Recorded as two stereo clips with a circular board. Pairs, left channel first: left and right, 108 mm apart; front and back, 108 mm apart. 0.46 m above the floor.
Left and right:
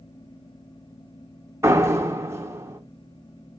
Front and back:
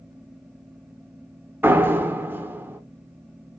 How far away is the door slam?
About 0.5 m.